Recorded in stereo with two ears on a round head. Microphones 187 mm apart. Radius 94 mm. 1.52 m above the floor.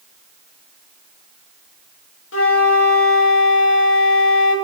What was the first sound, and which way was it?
A flute, 65° left (ahead or behind).